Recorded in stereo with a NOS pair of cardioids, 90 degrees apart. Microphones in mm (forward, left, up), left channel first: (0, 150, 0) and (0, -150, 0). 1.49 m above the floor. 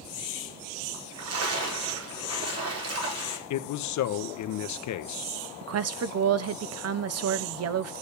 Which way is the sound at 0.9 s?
55° right.